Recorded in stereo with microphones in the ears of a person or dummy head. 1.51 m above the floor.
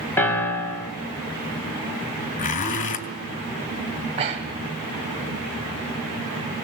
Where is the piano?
10° left (ahead or behind), 4 m.